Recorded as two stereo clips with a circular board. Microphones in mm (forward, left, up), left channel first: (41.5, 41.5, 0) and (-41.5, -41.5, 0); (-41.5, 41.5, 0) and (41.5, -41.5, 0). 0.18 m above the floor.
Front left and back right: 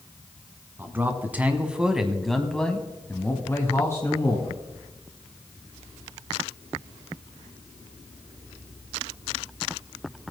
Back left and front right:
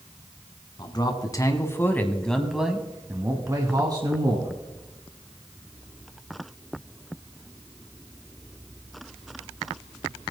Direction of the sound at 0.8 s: 160° left.